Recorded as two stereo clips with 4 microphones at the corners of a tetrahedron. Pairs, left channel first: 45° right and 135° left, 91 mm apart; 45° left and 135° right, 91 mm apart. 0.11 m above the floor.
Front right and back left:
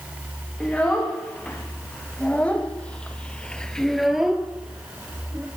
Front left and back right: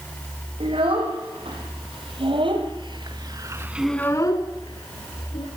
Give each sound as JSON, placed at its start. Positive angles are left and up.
{"t": 0.6, "sound": "a child speaking", "azimuth_deg": -125, "distance_m": 5.0}